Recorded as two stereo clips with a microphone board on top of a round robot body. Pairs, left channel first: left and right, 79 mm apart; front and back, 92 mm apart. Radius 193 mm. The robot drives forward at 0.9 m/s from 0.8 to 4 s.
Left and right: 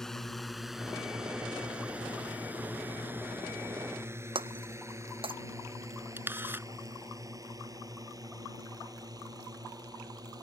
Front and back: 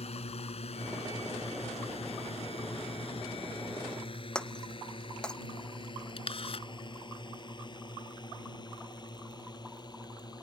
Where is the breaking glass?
80° right.